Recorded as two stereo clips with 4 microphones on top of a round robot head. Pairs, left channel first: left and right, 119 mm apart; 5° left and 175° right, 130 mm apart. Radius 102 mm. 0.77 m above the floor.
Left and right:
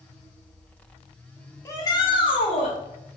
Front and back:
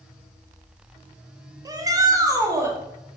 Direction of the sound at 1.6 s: 145° left.